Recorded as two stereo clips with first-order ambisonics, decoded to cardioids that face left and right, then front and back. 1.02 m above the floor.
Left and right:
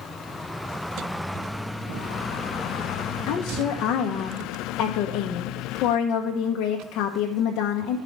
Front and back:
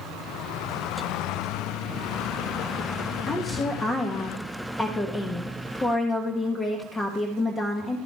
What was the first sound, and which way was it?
A woman speaking, 70° left.